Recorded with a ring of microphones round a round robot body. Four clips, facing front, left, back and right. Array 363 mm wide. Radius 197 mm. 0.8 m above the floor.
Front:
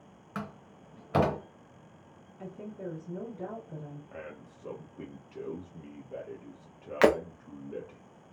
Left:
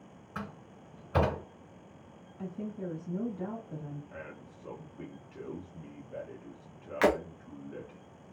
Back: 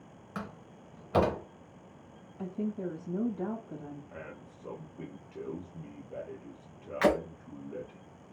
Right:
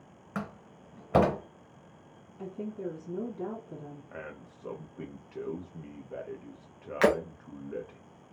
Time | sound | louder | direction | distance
0.3 | a door slam | right 4 dB, front 2 dB | 80° right | 1.0 m
2.4 | a woman speaking | right 2 dB, back 6 dB | 175° left | 1.7 m
4.1 | a man speaking | right 2 dB, front 1 dB | 80° right | 0.7 m
7.0 | breaking glass | right 2 dB, front 3 dB | 5° right | 0.6 m